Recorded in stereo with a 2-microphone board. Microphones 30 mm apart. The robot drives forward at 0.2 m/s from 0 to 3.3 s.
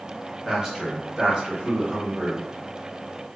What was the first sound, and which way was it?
A man speaking, 15° right (ahead or behind).